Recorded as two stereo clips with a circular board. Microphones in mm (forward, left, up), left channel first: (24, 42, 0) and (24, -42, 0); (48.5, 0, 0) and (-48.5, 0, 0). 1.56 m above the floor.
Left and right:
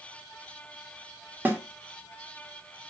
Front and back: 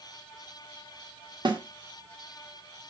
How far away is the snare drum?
About 1.9 m.